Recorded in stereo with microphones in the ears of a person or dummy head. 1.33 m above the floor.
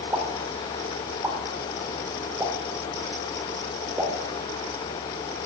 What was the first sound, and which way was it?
A pop, 10° right (ahead or behind).